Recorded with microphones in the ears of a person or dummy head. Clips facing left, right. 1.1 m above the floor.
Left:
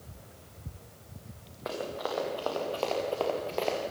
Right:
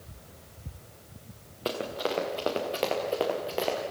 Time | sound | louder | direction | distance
1.6 | running footsteps | right 3 dB | 45° right (ahead or behind) | 5 m